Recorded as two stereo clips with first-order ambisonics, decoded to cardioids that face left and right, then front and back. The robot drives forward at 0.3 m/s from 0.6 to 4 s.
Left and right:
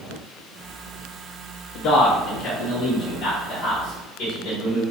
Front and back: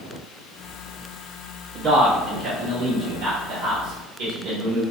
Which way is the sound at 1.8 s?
125° left.